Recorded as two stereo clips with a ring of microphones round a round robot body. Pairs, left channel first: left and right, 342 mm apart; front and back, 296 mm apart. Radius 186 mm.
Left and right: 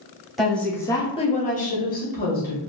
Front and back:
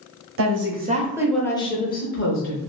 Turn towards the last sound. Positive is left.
turn(degrees=30)